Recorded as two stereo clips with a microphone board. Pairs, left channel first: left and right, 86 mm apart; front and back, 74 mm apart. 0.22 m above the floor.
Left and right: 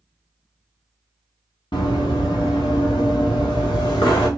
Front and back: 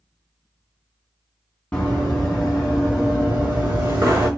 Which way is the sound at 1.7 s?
75° left.